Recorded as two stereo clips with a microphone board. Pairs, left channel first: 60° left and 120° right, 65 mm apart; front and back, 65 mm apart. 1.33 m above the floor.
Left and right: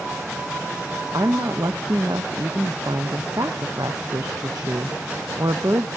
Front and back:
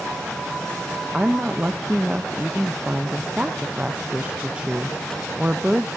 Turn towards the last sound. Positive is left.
turn(degrees=-110)